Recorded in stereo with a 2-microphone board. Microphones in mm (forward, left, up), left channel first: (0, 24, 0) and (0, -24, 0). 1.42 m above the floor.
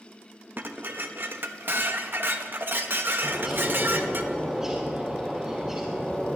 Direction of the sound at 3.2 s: 15° right (ahead or behind).